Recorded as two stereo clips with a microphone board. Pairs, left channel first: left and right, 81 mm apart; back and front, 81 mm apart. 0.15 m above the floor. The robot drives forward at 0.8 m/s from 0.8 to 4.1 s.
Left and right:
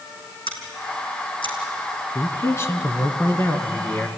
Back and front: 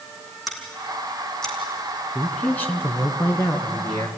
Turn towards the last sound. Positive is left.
turn(degrees=150)